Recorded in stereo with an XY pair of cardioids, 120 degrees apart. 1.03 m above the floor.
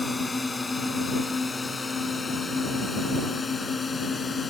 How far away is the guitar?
No guitar in this recording.